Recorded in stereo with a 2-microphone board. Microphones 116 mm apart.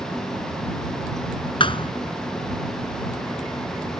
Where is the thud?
50° left (ahead or behind).